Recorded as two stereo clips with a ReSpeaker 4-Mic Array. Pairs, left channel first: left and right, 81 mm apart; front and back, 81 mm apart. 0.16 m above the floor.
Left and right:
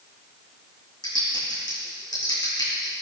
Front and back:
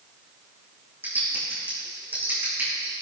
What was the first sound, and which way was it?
Typing on a keyboard, 115° left.